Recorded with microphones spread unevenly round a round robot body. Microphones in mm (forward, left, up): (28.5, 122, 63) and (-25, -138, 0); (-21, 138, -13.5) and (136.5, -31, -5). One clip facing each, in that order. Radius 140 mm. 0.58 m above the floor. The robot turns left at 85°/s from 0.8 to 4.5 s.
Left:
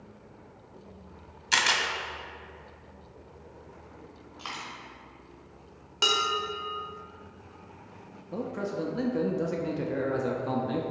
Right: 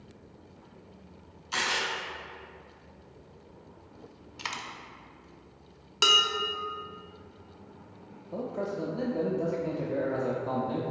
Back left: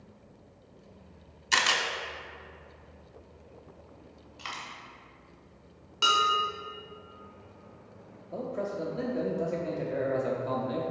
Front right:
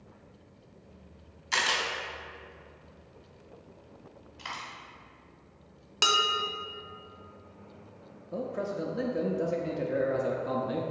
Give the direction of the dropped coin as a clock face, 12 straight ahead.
5 o'clock.